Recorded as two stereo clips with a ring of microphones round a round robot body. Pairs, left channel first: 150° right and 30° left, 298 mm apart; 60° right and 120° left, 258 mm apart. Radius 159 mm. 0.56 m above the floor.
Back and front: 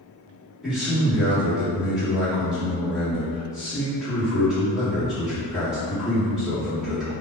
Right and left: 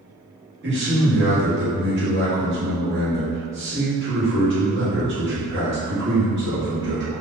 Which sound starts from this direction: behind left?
A man speaking, at 0.6 s.